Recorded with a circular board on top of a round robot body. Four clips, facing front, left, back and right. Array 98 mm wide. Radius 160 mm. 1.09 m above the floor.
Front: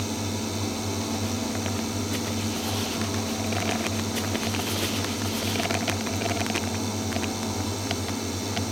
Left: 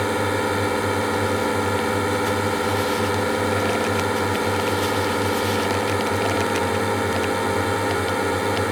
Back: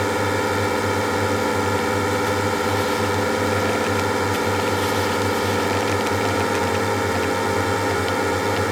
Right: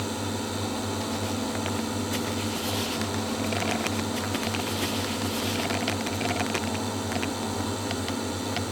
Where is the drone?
140° left.